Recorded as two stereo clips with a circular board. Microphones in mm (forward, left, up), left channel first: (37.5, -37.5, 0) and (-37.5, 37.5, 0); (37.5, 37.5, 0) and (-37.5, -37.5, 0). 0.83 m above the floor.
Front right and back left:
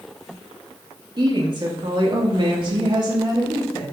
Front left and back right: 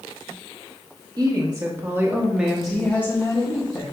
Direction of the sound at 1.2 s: 175° left.